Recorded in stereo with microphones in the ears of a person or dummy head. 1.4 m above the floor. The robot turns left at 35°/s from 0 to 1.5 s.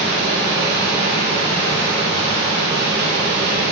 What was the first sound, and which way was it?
Running water, 5° right (ahead or behind).